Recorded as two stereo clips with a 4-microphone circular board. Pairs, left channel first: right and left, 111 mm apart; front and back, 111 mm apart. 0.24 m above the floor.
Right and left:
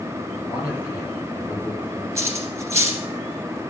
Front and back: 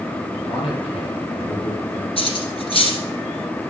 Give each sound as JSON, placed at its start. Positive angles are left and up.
{"t": 0.5, "sound": "a man speaking", "azimuth_deg": -20, "distance_m": 6.0}
{"t": 2.2, "sound": "cutlery clinking", "azimuth_deg": 30, "distance_m": 2.0}